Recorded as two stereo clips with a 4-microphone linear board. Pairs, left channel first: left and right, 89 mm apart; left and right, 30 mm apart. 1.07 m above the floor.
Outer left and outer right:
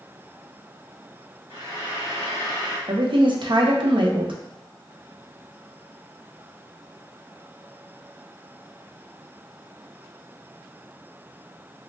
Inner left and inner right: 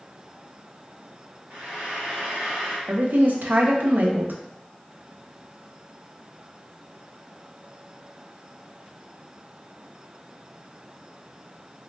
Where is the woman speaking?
65° right (ahead or behind), 0.5 m.